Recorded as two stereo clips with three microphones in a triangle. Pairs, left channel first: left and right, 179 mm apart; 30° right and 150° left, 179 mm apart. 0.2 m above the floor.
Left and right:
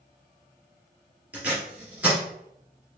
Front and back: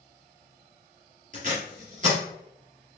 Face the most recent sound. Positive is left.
turn(degrees=-170)